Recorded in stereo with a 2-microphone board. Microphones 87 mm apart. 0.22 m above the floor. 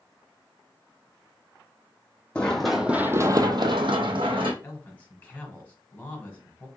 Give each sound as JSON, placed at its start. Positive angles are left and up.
{"t": 2.4, "sound": "running footsteps", "side_deg": 10, "distance_m": 0.7}
{"t": 4.6, "sound": "a man speaking", "side_deg": 20, "distance_m": 1.3}